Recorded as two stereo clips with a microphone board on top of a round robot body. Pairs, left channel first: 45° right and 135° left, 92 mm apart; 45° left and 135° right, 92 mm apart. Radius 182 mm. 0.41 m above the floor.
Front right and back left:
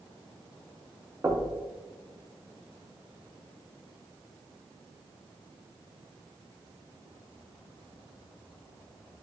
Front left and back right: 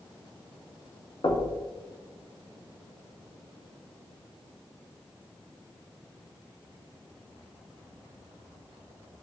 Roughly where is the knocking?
Left.